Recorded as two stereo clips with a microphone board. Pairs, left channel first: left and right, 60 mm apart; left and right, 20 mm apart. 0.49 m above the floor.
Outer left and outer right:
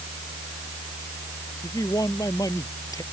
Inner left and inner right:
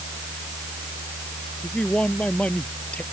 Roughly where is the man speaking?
Left.